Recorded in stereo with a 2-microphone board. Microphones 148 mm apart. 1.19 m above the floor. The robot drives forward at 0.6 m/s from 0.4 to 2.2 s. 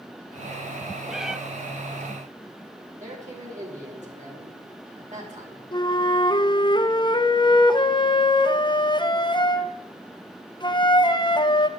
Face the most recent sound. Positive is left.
turn(degrees=30)  # may be behind; listen again after turning